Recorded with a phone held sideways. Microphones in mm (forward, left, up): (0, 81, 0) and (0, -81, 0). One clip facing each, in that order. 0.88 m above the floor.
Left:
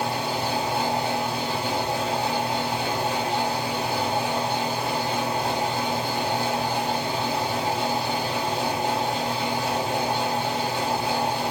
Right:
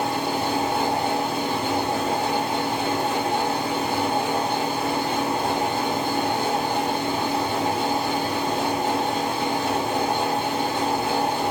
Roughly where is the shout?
I don't hear a shout.